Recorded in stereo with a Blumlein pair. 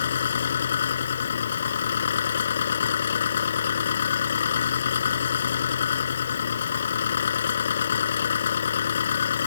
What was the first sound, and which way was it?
An engine running, 65° left.